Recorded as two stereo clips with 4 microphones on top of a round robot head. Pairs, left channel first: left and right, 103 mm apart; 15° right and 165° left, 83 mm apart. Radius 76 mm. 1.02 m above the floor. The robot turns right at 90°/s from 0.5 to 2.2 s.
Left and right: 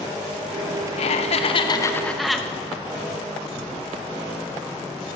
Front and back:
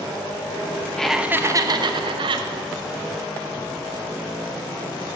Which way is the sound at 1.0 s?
70° left.